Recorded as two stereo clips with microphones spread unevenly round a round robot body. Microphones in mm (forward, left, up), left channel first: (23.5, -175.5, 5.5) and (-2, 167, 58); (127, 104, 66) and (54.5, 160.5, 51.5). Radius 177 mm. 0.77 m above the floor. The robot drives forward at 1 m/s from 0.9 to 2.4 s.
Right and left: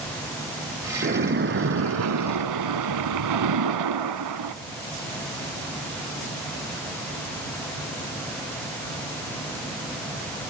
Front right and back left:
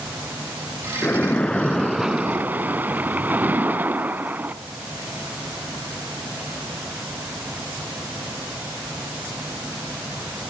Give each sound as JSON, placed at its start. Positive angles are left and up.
{"t": 1.0, "sound": "a splash", "azimuth_deg": 30, "distance_m": 2.0}